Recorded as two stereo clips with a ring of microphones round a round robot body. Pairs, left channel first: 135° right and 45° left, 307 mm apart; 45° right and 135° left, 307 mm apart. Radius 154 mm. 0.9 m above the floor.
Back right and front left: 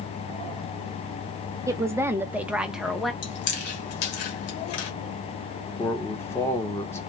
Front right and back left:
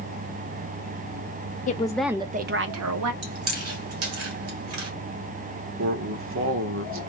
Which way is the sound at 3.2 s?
Straight behind.